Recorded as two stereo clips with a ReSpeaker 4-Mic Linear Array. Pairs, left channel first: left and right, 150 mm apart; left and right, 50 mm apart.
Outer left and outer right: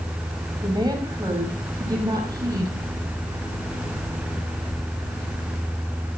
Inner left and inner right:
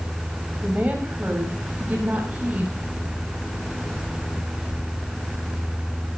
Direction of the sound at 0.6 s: 30° right (ahead or behind).